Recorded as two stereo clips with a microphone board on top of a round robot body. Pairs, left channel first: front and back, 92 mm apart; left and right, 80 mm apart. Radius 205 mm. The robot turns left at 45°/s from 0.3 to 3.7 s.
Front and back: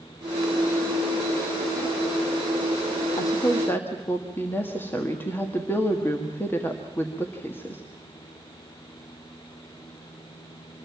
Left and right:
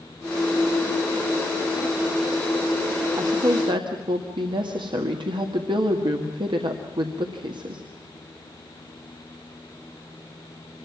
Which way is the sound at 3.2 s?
45° right.